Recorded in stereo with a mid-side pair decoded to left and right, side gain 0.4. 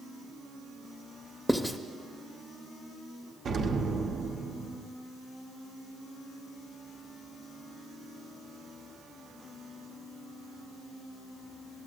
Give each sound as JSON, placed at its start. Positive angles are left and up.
{"t": 1.5, "sound": "writing", "azimuth_deg": 5, "distance_m": 0.6}
{"t": 3.5, "sound": "an explosion", "azimuth_deg": -60, "distance_m": 0.7}